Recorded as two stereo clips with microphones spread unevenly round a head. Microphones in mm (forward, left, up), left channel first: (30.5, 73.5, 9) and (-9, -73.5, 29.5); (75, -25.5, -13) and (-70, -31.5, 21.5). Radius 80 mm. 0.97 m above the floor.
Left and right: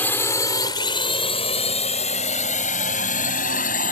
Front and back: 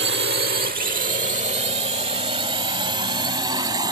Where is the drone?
155° left; by 3.9 s 115° left.